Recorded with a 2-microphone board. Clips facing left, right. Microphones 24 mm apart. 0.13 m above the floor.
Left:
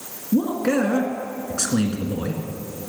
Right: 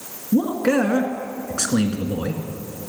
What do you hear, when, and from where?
0.3 s a man speaking: 15° right (ahead or behind), 1.4 m